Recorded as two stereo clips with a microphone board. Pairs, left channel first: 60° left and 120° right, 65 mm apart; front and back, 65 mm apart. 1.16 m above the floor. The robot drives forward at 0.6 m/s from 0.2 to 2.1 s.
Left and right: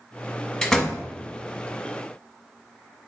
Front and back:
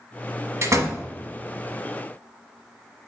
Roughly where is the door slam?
Behind left.